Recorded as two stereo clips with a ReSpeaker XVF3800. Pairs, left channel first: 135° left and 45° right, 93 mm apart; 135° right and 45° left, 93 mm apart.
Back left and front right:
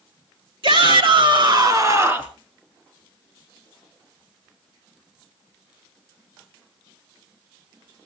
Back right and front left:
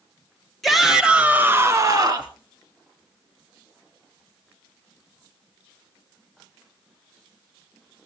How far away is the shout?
About 2.5 m.